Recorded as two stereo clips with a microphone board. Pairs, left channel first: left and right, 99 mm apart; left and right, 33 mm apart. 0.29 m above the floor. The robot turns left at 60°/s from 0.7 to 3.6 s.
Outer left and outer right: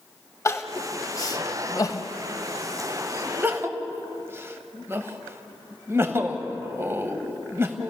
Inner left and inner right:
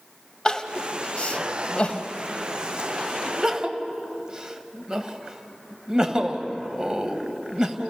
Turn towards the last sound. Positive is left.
turn(degrees=-25)  # may be behind; listen again after turning